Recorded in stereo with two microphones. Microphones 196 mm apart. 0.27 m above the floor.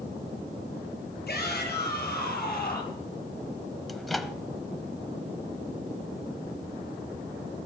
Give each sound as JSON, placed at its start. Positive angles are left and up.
{"t": 1.3, "sound": "a shout", "side_deg": 60, "distance_m": 6.5}
{"t": 3.9, "sound": "a microwave", "side_deg": 0, "distance_m": 0.9}